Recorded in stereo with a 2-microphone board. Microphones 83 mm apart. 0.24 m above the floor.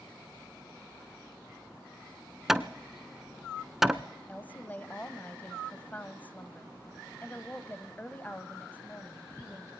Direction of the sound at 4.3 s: 20° left (ahead or behind).